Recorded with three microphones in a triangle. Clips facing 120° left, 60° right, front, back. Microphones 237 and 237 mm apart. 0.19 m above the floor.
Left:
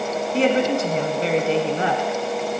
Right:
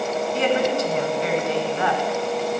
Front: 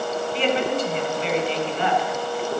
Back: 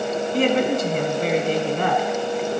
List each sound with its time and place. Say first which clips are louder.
0.3 s a woman speaking: left 3 dB, back 4 dB; 165° left, 1.6 m